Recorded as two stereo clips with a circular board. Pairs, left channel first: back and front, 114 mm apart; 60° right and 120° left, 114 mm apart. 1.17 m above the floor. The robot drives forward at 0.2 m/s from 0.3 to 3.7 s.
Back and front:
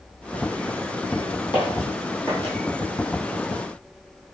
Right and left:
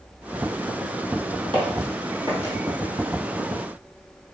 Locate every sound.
1.5 s footsteps: 145° left, 1.9 m; by 2.5 s 130° left, 1.3 m